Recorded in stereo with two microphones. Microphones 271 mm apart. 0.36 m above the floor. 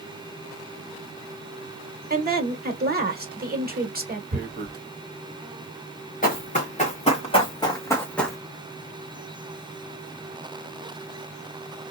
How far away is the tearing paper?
About 0.5 m.